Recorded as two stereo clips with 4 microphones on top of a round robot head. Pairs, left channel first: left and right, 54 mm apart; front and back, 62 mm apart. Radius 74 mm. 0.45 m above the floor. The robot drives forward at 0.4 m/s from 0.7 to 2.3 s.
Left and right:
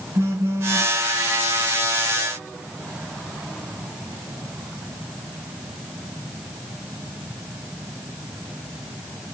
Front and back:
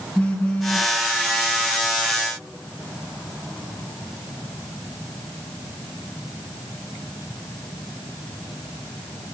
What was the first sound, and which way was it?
A phone buzzing, 80° right.